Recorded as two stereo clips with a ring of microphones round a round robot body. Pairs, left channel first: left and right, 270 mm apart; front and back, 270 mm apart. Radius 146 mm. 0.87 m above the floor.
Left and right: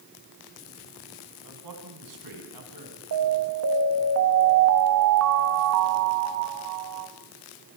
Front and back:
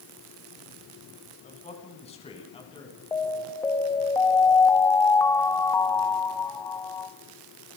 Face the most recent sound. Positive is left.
turn(degrees=-80)